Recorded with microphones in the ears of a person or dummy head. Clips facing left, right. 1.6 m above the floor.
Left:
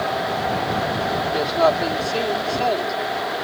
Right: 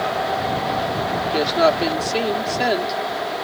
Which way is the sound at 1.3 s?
25° right (ahead or behind).